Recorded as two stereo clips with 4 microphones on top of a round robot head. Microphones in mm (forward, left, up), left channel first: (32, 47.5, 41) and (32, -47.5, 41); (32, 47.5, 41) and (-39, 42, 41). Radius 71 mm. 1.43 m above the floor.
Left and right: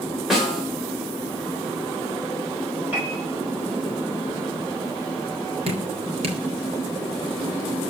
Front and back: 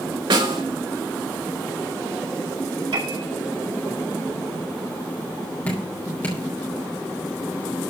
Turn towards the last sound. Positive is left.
turn(degrees=-75)